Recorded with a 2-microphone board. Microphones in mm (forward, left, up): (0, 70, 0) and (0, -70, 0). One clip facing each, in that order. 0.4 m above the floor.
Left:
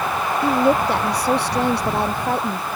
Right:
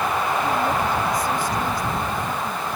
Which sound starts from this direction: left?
A woman speaking, at 0.4 s.